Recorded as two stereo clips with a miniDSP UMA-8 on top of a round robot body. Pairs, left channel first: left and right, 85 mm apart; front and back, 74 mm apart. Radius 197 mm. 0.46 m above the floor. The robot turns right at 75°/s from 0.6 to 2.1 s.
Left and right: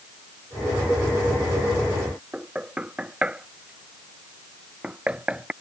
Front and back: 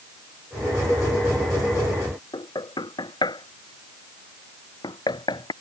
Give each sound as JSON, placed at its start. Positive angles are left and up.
{"t": 2.3, "sound": "knocking", "azimuth_deg": -10}